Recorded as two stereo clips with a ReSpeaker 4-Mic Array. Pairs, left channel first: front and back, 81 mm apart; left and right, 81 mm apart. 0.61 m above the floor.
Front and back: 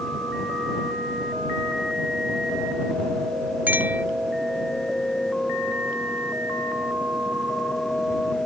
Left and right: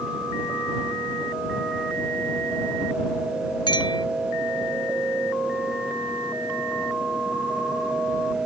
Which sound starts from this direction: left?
A clink, at 3.7 s.